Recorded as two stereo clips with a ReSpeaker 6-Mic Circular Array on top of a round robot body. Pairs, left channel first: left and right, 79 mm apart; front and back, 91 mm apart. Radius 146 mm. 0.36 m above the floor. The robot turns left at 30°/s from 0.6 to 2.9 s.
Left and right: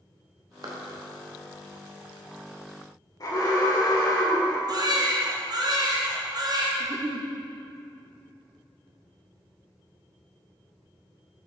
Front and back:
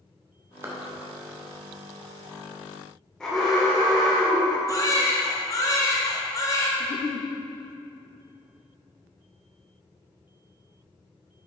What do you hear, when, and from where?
0.6 s a clap: 115° right, 1.3 m; by 0.8 s 120° right, 1.3 m
3.2 s an alarm: 80° left, 2 m
4.7 s a baby crying: 55° right, 1.3 m
6.8 s a giggle: 40° right, 0.6 m